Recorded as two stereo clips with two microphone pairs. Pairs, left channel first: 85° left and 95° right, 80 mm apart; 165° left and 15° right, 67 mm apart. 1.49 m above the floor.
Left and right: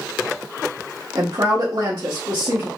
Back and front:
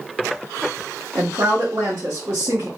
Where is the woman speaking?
60° right, 1.0 m.